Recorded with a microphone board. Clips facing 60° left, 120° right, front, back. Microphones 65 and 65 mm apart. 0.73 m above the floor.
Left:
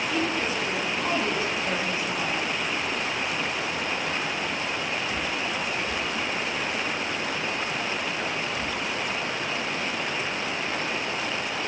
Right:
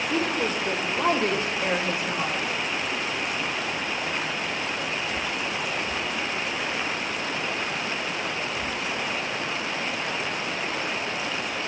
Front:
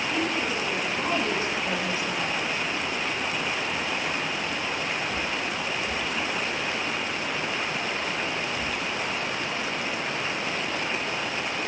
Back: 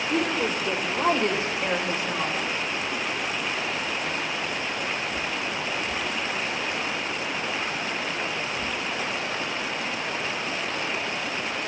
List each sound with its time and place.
0.1 s a woman speaking: 165° right, 3 m; by 2.5 s 135° right, 3.5 m